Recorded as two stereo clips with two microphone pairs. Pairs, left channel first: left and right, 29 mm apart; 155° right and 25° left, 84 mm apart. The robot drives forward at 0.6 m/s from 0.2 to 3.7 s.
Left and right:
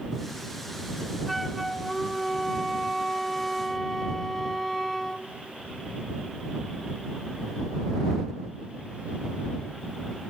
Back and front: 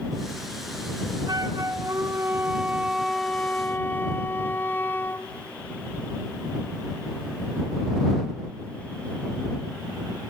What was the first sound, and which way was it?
A flute, 5° left.